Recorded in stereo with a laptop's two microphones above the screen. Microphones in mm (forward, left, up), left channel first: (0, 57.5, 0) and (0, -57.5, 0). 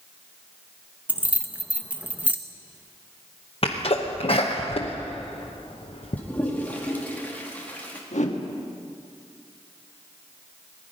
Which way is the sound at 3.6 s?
55° left (ahead or behind).